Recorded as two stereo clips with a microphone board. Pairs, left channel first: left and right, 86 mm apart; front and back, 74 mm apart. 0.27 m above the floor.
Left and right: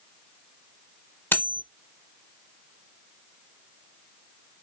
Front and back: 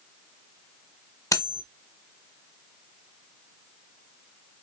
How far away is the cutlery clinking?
About 0.8 m.